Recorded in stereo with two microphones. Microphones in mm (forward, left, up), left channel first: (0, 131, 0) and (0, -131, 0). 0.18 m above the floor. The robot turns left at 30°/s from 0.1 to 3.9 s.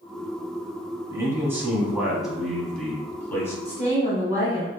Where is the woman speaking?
15° right (ahead or behind), 1.2 m; by 4.7 s 10° right (ahead or behind), 1.2 m.